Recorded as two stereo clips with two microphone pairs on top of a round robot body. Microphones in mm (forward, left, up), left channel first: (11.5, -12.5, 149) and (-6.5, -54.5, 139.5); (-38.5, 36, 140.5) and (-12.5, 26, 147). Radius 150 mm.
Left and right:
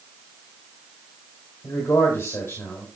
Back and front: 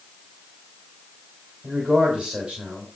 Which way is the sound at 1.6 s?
40° left.